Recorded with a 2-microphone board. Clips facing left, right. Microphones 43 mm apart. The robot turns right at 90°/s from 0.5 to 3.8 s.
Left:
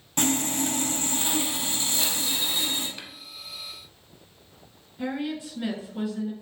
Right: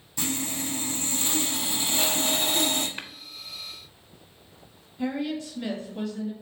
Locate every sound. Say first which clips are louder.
0.2 s sawing: left 5 dB; 80° left, 0.9 m; by 2.9 s 65° right, 0.9 m
3.0 s tapping: right 4 dB; 35° right (ahead or behind), 0.6 m
5.0 s a woman speaking: right 1 dB; 15° left (ahead or behind), 1.6 m